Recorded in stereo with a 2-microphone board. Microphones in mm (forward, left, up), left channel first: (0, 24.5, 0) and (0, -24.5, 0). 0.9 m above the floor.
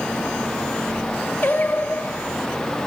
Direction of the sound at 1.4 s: 40° left (ahead or behind).